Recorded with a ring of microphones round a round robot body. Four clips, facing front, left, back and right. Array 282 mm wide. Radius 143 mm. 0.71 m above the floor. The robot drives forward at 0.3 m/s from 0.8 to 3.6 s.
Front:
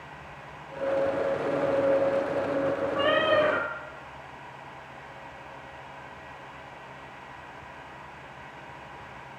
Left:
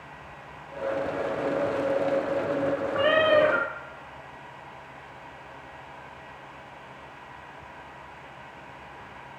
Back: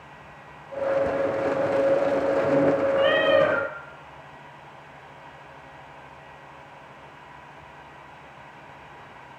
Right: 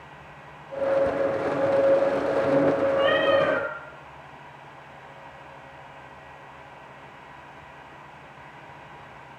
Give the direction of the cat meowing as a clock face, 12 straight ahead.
8 o'clock.